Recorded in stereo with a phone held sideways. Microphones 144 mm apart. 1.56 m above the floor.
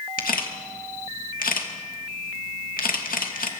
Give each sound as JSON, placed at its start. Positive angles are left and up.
{"t": 0.2, "sound": "a camera shutter", "side_deg": 80, "distance_m": 2.5}